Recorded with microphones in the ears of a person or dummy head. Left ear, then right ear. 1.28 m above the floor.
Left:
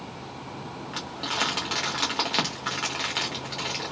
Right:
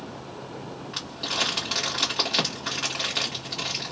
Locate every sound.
0.9 s crumpling: 20° left (ahead or behind), 1.1 m